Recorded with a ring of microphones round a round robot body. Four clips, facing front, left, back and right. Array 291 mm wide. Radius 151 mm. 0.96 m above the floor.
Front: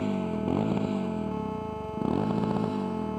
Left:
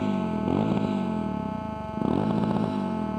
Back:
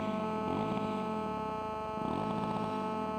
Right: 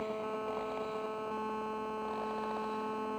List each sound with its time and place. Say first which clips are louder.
0.0 s a motorcycle: left 10 dB, front 5 dB; 65° left